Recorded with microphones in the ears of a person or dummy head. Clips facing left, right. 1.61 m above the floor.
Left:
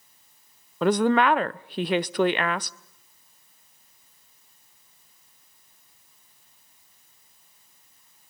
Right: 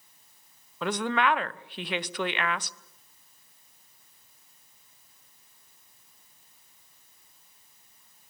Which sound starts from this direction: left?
A woman speaking, at 0.8 s.